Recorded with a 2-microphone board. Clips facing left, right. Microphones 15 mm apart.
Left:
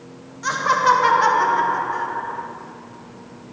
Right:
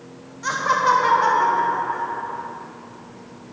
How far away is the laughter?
About 0.8 m.